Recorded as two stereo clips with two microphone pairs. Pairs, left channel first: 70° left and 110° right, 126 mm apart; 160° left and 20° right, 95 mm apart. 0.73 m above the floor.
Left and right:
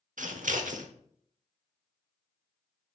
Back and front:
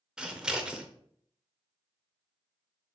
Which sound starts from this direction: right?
Scissors, at 0.2 s.